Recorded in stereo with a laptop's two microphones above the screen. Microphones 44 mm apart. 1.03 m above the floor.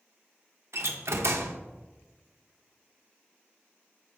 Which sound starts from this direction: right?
A door slam, at 0.7 s.